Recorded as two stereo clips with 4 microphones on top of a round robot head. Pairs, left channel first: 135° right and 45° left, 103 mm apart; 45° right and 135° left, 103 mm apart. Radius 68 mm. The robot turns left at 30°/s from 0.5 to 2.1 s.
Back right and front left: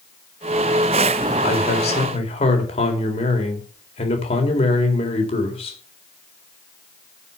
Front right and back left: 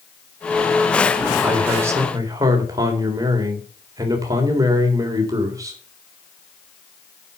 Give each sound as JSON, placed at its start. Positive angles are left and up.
{"t": 1.4, "sound": "a man speaking", "azimuth_deg": -145, "distance_m": 4.0}